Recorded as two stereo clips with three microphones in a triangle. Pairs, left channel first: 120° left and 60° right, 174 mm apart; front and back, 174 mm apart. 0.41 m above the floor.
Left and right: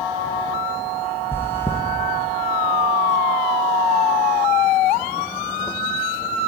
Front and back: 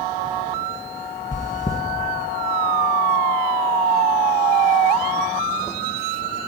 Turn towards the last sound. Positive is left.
turn(degrees=45)